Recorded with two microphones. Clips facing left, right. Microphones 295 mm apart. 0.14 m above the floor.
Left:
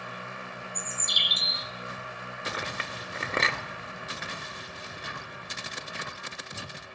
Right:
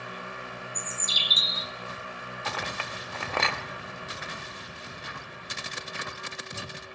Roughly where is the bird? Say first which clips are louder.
Right 1 dB; centre.